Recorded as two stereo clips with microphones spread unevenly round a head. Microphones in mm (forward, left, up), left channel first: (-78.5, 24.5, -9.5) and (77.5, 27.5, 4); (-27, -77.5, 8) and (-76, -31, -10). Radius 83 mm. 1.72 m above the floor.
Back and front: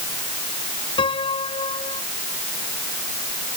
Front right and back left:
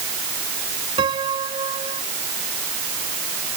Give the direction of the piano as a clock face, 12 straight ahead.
8 o'clock.